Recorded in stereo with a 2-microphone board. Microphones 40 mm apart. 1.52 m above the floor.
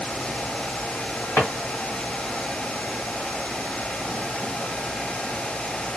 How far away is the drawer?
About 1.3 m.